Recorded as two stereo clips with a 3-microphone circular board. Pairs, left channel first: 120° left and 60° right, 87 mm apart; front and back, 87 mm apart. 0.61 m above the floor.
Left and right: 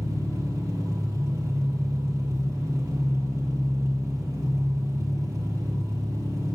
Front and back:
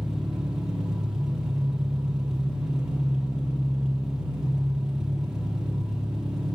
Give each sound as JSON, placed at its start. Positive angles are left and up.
{"t": 0.0, "sound": "an engine running", "azimuth_deg": -100, "distance_m": 1.1}